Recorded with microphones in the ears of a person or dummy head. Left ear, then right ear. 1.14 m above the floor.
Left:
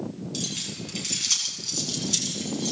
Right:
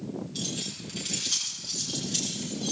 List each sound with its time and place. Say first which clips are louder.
0.3 s keys jangling: left 4 dB; 60° left (ahead or behind), 8.5 m; by 2.7 s 75° left (ahead or behind), 8 m